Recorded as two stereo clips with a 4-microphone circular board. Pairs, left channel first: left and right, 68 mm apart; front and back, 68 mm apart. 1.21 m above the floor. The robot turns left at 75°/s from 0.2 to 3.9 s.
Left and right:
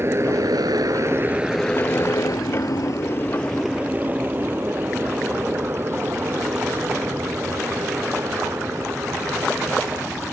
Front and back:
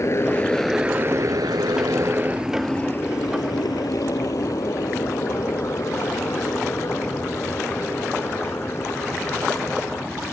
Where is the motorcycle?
40° right; by 10.3 s 50° right.